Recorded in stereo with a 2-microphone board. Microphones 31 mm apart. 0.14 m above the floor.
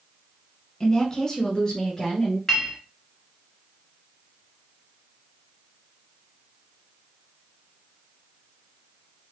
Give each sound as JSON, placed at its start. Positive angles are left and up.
{"t": 0.8, "sound": "a woman speaking", "side_deg": 20, "distance_m": 1.3}
{"t": 2.5, "sound": "a clink", "side_deg": 10, "distance_m": 1.2}